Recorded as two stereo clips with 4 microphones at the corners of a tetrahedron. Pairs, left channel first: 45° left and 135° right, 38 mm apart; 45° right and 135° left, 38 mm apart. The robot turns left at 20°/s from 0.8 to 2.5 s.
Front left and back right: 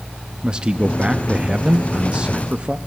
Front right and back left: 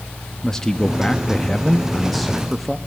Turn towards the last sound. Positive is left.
turn(degrees=-140)